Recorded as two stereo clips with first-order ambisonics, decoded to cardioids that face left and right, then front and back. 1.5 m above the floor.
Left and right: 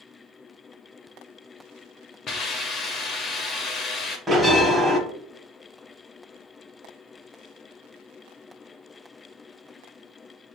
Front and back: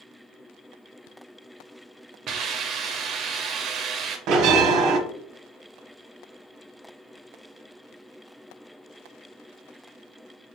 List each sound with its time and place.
2.3 s a hiss: 145° left, 0.5 m
4.3 s a bell: 175° right, 0.6 m